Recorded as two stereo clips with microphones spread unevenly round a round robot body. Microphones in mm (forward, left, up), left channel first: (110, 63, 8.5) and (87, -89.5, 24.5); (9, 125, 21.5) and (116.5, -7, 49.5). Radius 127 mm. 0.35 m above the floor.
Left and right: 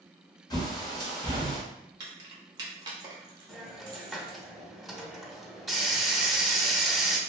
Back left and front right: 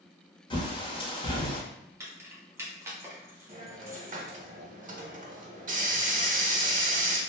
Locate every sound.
0.5 s a bird: 120° left, 0.9 m
2.0 s keys jangling: 125° right, 0.6 m
3.5 s a hiss: 10° right, 0.7 m